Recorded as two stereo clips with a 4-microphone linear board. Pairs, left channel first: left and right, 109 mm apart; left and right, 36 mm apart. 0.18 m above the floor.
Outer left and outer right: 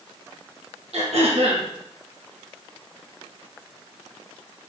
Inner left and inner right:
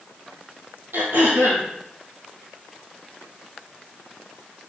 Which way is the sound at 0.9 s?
80° right.